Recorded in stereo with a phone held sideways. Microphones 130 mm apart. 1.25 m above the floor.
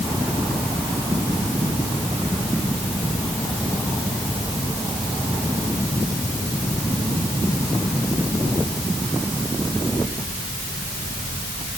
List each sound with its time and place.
Only background noise.